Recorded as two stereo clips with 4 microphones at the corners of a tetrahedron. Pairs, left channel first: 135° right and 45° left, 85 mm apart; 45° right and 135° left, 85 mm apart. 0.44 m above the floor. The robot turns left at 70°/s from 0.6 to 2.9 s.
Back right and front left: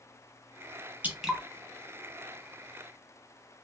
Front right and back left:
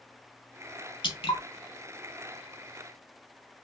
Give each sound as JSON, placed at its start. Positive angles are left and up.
{"t": 1.0, "sound": "dripping", "azimuth_deg": -20, "distance_m": 0.8}